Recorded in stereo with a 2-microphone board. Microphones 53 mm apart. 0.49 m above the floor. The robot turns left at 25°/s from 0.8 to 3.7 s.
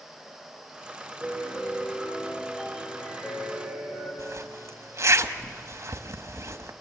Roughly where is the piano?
Behind.